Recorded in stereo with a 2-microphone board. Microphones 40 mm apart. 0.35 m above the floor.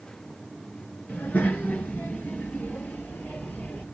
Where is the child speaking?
45° left (ahead or behind), 4 m; by 3.8 s 50° left (ahead or behind), 6.5 m.